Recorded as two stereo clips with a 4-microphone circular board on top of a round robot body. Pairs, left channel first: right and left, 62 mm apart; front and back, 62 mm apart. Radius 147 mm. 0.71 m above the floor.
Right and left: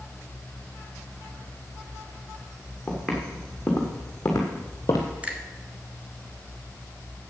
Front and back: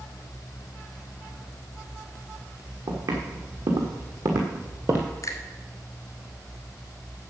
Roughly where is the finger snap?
Ahead left.